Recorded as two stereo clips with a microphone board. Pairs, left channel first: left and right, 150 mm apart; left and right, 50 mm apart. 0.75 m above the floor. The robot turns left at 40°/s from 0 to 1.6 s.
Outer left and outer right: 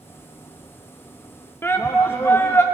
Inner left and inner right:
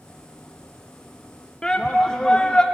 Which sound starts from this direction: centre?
A shout, at 1.6 s.